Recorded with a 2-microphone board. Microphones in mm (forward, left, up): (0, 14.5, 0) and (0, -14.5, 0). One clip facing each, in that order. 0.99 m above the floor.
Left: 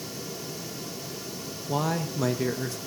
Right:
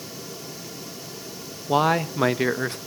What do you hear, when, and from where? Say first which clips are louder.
1.7 s a man speaking: right 8 dB; 55° right (ahead or behind), 0.5 m